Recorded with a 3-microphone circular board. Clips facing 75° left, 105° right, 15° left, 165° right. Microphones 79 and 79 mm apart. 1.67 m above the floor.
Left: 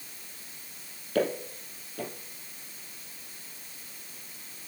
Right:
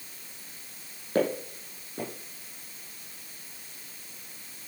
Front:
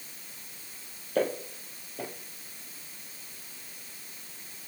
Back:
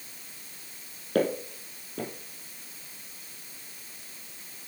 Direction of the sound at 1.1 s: 155° right.